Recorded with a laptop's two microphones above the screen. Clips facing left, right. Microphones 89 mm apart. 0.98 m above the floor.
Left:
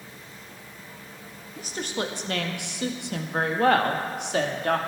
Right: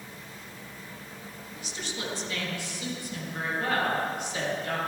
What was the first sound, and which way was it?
A woman speaking, 45° left (ahead or behind).